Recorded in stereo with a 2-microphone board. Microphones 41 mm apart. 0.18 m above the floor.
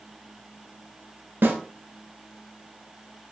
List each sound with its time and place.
1.4 s a snare drum: 60° right (ahead or behind), 0.9 m